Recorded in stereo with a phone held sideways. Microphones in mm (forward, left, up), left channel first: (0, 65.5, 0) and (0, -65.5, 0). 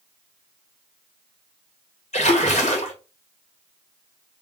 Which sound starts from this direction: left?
A splash, at 2.1 s.